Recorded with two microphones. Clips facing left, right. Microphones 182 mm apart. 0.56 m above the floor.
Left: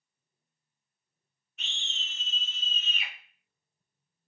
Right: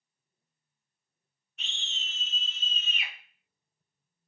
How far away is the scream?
About 1.2 m.